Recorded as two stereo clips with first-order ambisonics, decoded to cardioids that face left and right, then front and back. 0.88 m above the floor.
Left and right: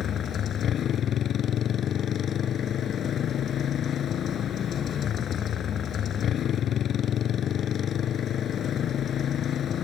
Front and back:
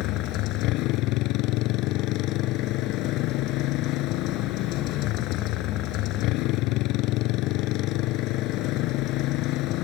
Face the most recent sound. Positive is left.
turn(degrees=30)